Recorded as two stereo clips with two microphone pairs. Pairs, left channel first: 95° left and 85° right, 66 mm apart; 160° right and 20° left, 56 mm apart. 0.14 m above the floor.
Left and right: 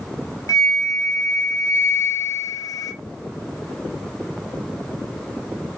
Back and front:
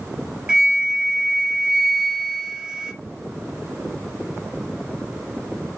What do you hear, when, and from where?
0.5 s a flute: 95° left, 0.8 m